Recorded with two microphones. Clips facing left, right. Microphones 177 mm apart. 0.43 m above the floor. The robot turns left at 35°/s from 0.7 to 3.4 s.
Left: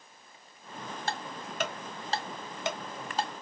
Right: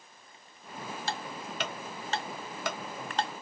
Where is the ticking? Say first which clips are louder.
Left 2 dB; 55° left (ahead or behind), 0.6 m; by 3.4 s centre (ahead or behind), 0.6 m.